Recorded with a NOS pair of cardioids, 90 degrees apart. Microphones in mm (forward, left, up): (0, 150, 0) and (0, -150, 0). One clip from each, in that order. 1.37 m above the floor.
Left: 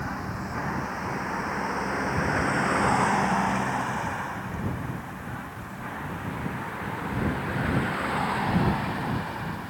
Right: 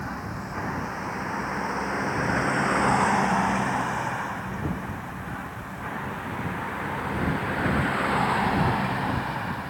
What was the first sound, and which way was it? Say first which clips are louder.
A vehicle: left 1 dB; 5° left.